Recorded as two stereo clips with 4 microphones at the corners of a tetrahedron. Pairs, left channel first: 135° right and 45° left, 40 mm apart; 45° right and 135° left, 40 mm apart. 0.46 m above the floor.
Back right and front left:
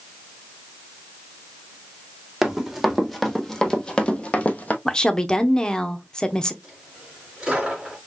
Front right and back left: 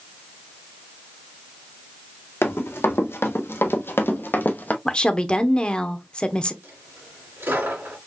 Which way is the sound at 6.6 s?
115° left.